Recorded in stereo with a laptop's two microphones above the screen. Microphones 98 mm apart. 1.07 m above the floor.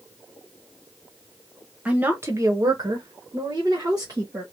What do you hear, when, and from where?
1.9 s a woman speaking: 15° right (ahead or behind), 0.9 m; by 4.4 s 40° right (ahead or behind), 1.7 m